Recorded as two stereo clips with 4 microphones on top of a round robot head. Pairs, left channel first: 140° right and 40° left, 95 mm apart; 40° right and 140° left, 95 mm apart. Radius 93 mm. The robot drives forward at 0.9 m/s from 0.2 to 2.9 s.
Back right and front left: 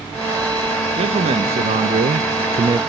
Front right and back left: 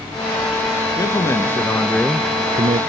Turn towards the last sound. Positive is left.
turn(degrees=120)